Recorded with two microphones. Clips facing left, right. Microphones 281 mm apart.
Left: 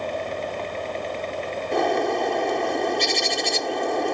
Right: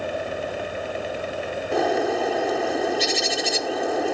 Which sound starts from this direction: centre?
A bird, at 1.7 s.